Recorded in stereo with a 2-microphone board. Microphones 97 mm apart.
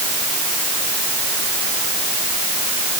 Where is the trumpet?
I don't hear a trumpet.